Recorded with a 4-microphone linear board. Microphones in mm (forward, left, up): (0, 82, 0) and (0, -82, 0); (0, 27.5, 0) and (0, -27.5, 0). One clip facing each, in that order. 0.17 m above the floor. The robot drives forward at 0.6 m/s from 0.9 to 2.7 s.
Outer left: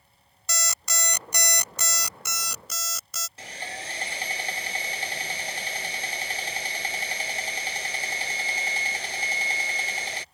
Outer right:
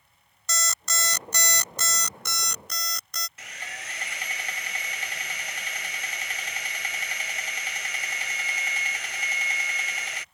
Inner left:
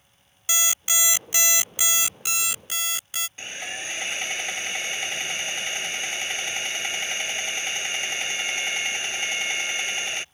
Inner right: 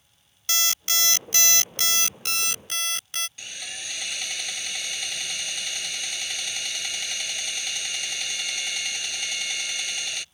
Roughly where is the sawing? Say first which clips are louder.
Outer left 5 dB, inner left 4 dB; left.